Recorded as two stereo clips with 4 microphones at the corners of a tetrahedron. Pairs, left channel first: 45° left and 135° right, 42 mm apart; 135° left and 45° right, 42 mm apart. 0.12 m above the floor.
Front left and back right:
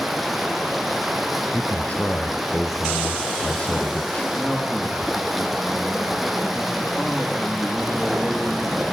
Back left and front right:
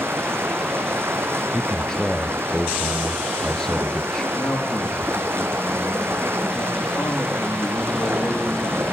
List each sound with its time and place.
0.0 s running water: 45° right, 1.6 m
1.5 s a man speaking: 70° left, 1.5 m
4.3 s a man speaking: 120° left, 6 m